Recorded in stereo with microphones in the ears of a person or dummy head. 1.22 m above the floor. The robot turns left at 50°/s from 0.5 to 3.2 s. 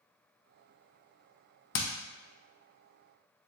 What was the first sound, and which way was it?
Hammering, 60° left (ahead or behind).